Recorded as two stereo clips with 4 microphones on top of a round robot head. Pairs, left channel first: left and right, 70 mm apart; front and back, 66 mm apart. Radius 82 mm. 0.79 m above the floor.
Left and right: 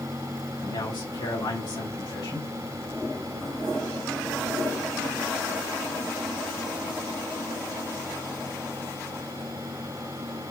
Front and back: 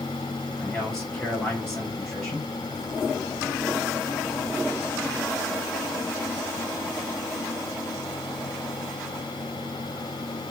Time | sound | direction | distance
0.6 | a man speaking | 80° left | 5 m